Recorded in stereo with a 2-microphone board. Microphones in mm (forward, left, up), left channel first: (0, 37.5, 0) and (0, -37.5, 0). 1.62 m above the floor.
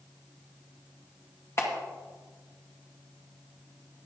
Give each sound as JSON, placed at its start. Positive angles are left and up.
{"t": 1.6, "sound": "a clap", "side_deg": 40, "distance_m": 2.0}